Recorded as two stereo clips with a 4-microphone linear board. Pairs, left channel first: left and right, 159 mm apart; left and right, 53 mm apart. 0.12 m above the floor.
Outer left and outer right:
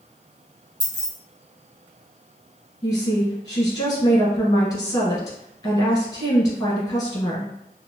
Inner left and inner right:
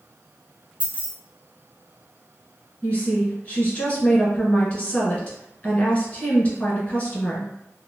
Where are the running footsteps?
No running footsteps in this recording.